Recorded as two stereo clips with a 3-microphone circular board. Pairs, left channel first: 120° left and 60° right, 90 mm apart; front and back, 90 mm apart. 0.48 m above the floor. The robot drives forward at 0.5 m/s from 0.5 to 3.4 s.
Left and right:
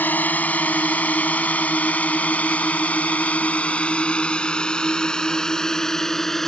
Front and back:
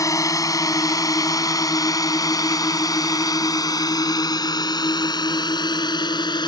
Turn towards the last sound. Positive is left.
turn(degrees=35)